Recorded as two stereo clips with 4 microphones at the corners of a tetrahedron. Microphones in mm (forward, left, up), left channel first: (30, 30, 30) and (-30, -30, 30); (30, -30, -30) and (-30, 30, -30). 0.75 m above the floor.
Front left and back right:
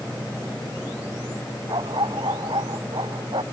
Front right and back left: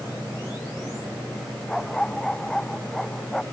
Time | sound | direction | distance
1.7 | a dog barking | 130° right | ?